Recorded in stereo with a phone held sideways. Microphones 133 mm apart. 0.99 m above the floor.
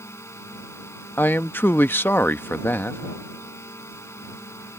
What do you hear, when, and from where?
0.0 s a drone: 20° left (ahead or behind)
1.2 s a man speaking: 15° left (ahead or behind)